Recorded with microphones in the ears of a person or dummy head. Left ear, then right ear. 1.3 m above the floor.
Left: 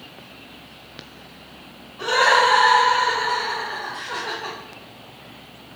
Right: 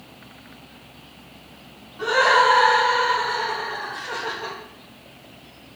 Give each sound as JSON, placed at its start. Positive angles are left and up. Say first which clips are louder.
{"t": 2.0, "sound": "laughter", "louder": "even", "side_deg": -5, "distance_m": 1.0}